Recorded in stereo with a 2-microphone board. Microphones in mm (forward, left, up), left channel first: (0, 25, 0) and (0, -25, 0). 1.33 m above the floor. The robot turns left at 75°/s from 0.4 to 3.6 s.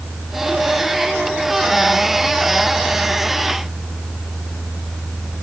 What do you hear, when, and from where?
Only background noise.